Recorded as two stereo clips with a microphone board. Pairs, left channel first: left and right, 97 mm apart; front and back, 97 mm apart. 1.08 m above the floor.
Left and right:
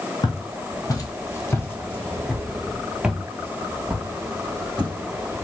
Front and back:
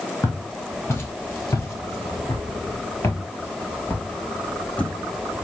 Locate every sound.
0.2 s footsteps: 60° left, 1.9 m; by 4.9 s 70° right, 1.7 m